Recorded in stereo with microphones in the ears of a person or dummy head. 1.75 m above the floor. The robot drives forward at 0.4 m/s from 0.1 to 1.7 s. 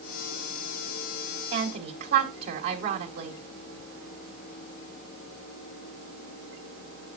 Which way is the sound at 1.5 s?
65° right (ahead or behind).